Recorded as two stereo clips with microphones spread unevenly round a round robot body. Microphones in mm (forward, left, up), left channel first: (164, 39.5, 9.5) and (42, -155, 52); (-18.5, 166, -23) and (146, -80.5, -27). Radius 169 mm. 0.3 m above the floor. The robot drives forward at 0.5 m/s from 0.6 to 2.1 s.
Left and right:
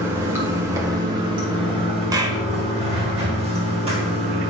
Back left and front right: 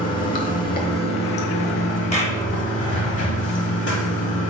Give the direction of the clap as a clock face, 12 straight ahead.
7 o'clock.